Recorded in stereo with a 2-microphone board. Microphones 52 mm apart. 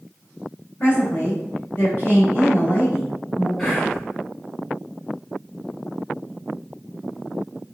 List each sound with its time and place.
0.8 s a woman speaking: 30° left (ahead or behind), 2.0 m
3.6 s whispering: 5° left (ahead or behind), 1.2 m